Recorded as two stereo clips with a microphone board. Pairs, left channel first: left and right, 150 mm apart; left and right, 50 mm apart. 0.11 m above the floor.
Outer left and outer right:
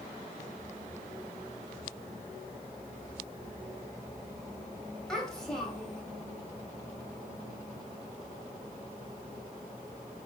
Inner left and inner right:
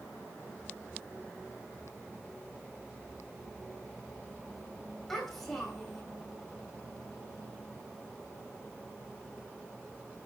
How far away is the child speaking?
About 2.5 m.